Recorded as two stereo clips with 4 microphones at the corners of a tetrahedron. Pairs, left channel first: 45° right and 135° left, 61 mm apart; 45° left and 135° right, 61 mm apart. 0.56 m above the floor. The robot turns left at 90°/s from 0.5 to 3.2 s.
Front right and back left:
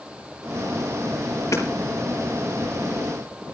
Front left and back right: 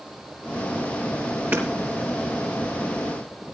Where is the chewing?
I don't hear chewing.